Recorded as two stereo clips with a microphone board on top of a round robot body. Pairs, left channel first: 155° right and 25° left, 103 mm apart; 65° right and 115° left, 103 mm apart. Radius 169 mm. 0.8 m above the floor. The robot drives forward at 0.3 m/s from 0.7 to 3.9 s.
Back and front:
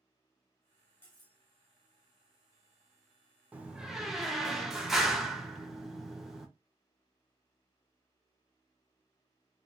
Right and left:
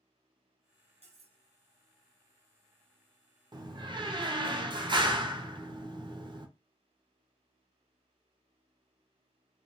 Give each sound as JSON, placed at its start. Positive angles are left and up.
{"t": 1.0, "sound": "cutlery clinking", "azimuth_deg": 125, "distance_m": 0.9}
{"t": 3.5, "sound": "a door slam", "azimuth_deg": 90, "distance_m": 0.6}